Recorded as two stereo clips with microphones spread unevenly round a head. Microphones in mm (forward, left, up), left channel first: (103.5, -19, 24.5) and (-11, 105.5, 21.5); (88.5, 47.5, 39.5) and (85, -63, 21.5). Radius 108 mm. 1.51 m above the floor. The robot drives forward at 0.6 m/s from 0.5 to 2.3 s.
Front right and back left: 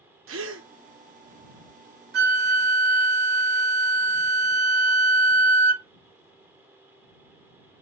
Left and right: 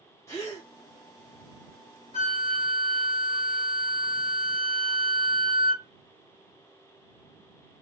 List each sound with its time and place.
0.3 s a gasp: 165° left, 0.5 m; by 0.7 s 170° left, 0.6 m
2.1 s a flute: 115° left, 0.6 m; by 5.8 s 120° left, 0.6 m